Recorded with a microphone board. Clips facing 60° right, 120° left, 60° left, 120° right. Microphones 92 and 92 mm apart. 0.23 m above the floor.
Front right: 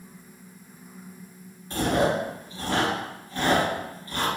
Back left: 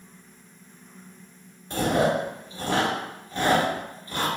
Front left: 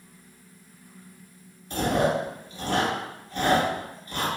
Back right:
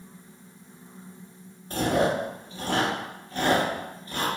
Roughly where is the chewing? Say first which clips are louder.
Back left 1 dB, even; behind.